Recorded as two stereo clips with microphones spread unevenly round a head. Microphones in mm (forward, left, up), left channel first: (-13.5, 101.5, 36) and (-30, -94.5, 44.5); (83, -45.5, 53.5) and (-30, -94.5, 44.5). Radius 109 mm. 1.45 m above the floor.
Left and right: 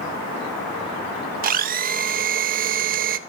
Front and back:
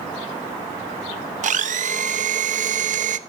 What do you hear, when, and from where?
1.4 s a blender: 140° right, 1.0 m